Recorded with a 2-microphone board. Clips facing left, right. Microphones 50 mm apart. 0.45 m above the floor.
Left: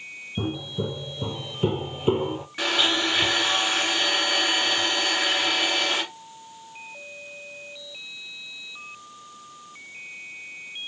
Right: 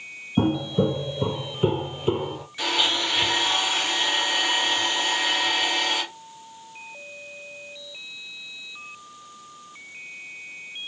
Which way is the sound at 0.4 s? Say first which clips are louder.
Right 8 dB; 60° right (ahead or behind).